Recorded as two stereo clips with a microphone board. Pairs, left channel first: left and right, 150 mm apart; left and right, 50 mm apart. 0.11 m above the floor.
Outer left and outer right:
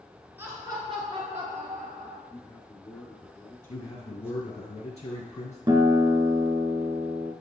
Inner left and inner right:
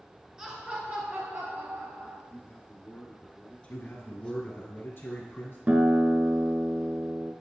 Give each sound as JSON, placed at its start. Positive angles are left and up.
{"t": 0.4, "sound": "laughter", "side_deg": -15, "distance_m": 1.8}
{"t": 2.3, "sound": "a man speaking", "side_deg": 15, "distance_m": 1.7}
{"t": 3.7, "sound": "a man speaking", "side_deg": 40, "distance_m": 2.5}
{"t": 5.7, "sound": "a guitar", "side_deg": -30, "distance_m": 0.6}